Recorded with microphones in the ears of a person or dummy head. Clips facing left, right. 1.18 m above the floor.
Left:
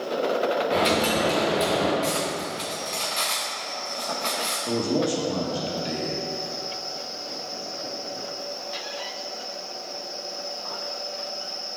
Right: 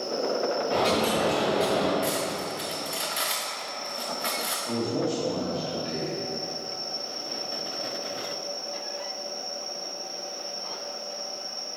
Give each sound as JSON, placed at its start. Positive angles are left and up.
{"t": 0.7, "sound": "a dropped coin", "side_deg": 15, "distance_m": 2.5}
{"t": 2.0, "sound": "cutlery clinking", "side_deg": -10, "distance_m": 0.8}
{"t": 4.7, "sound": "a man speaking", "side_deg": 65, "distance_m": 1.5}